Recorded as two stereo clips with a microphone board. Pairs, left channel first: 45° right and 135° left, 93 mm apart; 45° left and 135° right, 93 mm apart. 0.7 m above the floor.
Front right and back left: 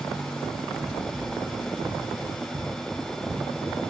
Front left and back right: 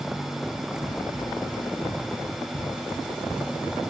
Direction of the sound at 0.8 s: 65° left.